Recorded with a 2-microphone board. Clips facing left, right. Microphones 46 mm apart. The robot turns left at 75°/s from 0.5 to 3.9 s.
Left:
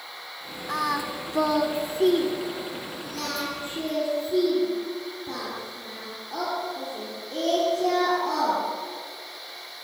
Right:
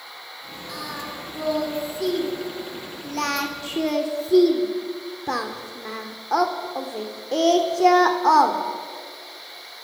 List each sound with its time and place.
0.7 s singing: 40° left (ahead or behind), 2.5 m; by 8.6 s 75° right (ahead or behind), 2.5 m